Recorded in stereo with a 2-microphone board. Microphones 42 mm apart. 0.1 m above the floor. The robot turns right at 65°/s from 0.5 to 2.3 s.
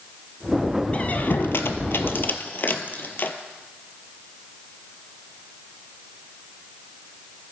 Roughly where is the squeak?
Left.